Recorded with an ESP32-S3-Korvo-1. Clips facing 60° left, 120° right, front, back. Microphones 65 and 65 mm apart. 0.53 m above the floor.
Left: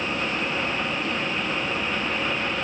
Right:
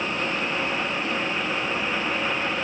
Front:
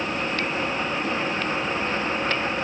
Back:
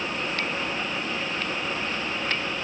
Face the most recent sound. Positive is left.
No sound to turn to.